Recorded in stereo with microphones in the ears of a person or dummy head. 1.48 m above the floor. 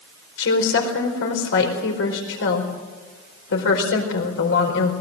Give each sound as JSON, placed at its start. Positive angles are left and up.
{"t": 0.4, "sound": "a woman speaking", "side_deg": 85, "distance_m": 4.5}